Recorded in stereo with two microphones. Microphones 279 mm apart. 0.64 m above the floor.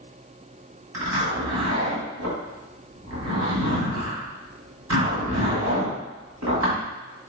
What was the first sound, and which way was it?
A zipper, 75° right (ahead or behind).